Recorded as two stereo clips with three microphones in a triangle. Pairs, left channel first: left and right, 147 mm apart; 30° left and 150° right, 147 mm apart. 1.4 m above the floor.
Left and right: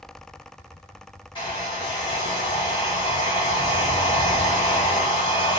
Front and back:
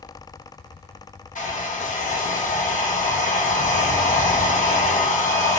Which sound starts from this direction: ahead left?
A hair dryer, at 1.4 s.